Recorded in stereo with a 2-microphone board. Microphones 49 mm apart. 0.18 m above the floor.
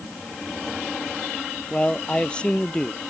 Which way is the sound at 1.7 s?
20° left (ahead or behind).